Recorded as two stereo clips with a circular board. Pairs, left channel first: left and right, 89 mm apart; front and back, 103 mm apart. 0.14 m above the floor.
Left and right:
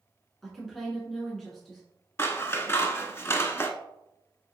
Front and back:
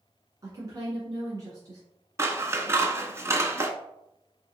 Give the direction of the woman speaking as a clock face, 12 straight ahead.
6 o'clock.